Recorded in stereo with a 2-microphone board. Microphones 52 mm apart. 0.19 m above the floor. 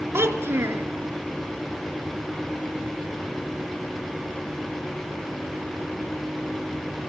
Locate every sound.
0.1 s a child speaking: 50° right (ahead or behind), 2 m